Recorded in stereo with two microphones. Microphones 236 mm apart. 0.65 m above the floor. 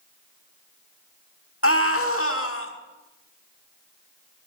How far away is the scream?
About 1.4 m.